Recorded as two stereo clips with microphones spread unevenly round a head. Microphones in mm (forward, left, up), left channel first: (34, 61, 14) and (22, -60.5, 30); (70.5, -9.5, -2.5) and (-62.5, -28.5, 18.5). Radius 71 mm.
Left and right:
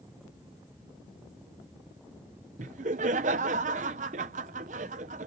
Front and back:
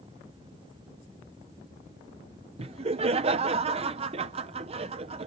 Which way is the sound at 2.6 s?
125° right.